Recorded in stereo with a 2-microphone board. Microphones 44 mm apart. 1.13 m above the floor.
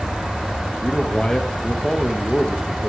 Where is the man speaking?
20° left (ahead or behind), 0.8 m.